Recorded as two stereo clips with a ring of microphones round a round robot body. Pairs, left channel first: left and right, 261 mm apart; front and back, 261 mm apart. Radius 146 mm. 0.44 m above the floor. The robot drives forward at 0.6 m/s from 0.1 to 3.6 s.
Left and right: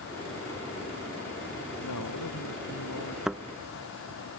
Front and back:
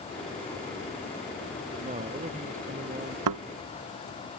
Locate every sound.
1.8 s a man speaking: 115° left; by 3.2 s 120° left
3.3 s a thud: straight behind